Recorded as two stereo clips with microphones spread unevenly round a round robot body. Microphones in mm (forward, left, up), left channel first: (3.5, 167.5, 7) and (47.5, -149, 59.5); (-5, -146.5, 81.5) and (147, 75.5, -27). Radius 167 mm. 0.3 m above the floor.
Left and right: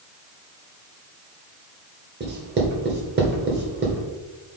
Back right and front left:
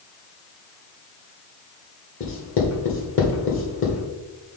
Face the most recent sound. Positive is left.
turn(degrees=-105)